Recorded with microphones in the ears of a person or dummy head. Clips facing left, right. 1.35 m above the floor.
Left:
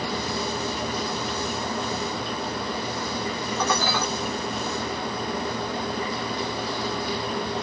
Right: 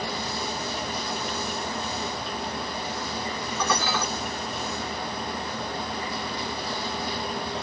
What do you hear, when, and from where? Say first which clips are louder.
3.6 s dishes clattering: left 1 dB; 35° left (ahead or behind), 1.2 m